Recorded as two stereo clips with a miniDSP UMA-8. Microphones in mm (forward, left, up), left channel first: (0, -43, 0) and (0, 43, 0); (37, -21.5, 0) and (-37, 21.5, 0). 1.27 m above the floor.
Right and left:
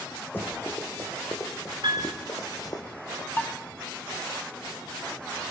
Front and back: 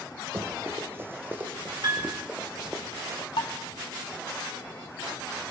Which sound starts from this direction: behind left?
A piano, at 1.8 s.